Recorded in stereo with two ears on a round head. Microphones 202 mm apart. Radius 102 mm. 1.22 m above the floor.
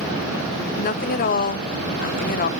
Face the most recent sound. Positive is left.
turn(degrees=40)  # may be behind; listen again after turning